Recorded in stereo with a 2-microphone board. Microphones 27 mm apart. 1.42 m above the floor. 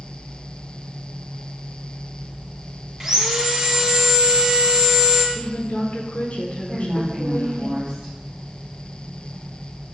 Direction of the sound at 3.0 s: 15° right (ahead or behind).